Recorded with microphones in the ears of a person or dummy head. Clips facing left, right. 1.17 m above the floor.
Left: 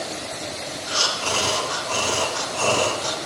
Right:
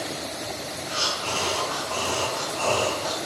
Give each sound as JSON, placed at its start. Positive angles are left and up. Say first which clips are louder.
{"t": 0.9, "sound": "breathing", "louder": "left 4 dB", "side_deg": 75, "distance_m": 1.7}